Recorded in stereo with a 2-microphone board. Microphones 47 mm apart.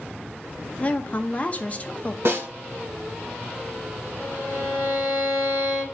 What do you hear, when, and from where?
0.8 s a woman speaking: 30° left (ahead or behind), 0.5 m
2.2 s a snare drum: 55° right (ahead or behind), 1.7 m
4.2 s a violin: 65° left (ahead or behind), 2.5 m